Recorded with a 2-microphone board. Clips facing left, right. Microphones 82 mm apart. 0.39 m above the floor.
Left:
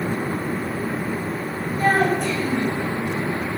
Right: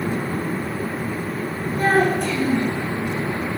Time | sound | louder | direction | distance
1.8 | a child speaking | right 1 dB | 60° right (ahead or behind) | 4.5 m